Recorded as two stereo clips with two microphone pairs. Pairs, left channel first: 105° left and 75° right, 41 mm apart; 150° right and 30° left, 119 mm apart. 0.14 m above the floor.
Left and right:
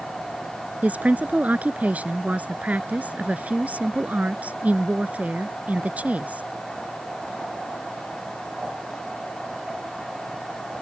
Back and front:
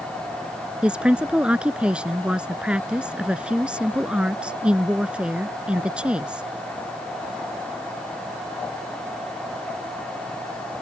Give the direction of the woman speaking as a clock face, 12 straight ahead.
2 o'clock.